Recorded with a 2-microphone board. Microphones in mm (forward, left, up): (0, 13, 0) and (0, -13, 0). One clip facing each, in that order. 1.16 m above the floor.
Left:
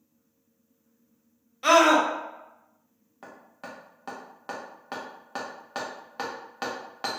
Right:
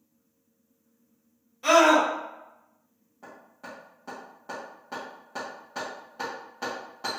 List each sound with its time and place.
1.6 s a scream: 55° left (ahead or behind), 1.0 m
3.2 s hammering: 75° left (ahead or behind), 1.0 m